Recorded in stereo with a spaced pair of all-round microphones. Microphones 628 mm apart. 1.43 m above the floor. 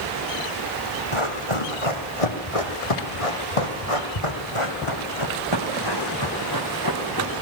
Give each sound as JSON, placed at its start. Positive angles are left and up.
{"t": 1.1, "sound": "running footsteps", "side_deg": 45, "distance_m": 3.5}